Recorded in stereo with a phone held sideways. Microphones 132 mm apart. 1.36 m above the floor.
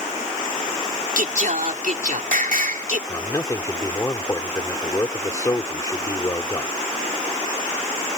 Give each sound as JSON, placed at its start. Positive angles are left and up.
{"t": 1.2, "sound": "singing", "side_deg": -85}
{"t": 3.1, "sound": "a man speaking", "side_deg": 25}